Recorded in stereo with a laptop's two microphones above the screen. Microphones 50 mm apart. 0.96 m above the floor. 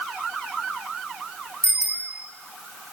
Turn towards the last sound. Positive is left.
turn(degrees=-70)  # may be behind; listen again after turning